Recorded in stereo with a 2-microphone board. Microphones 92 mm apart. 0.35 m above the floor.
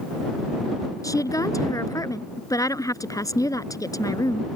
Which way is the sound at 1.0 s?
40° left (ahead or behind).